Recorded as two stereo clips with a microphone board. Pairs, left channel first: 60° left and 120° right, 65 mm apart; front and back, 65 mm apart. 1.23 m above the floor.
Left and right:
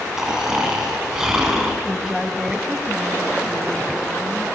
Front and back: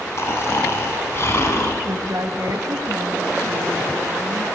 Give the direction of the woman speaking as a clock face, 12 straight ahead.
7 o'clock.